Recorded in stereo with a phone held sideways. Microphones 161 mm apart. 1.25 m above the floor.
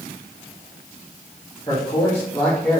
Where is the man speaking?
25° left (ahead or behind), 2.5 m; by 2.8 s 5° left (ahead or behind), 2 m.